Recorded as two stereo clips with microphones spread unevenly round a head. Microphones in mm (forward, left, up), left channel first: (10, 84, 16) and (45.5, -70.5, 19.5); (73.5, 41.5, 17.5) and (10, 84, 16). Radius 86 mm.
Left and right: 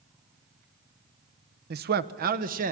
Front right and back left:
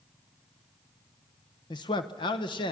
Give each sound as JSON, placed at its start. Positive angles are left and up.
{"t": 1.7, "sound": "a man speaking", "azimuth_deg": -70, "distance_m": 0.9}